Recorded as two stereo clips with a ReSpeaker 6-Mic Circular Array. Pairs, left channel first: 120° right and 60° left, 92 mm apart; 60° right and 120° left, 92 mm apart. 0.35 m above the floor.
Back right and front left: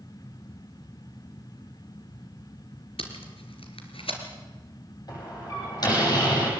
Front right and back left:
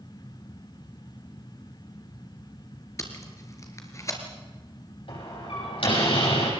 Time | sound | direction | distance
3.0 | tape being pulled | 115° right | 3.5 m
5.1 | a door slam | 75° right | 9.5 m